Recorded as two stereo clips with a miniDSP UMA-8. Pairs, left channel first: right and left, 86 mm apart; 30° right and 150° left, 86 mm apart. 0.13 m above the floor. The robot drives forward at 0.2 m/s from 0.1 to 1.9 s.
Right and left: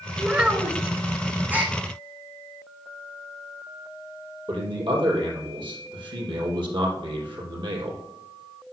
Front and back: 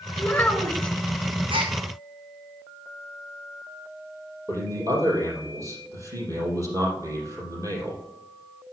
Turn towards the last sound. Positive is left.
turn(degrees=105)